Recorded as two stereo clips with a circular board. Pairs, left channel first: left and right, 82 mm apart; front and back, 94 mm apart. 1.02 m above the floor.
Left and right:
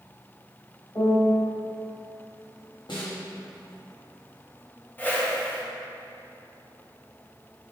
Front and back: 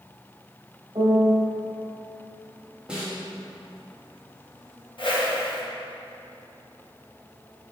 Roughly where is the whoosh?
Ahead left.